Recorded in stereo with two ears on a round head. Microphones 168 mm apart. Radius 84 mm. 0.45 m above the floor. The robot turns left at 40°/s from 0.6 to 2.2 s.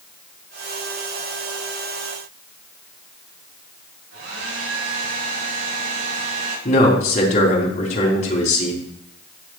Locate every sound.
4.1 s a hair dryer: 80° right, 7.5 m
6.7 s a man speaking: 40° left (ahead or behind), 4.5 m